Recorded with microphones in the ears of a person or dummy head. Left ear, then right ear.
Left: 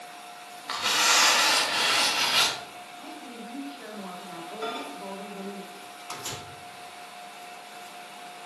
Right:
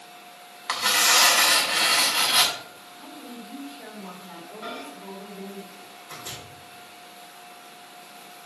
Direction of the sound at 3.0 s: 15° left (ahead or behind).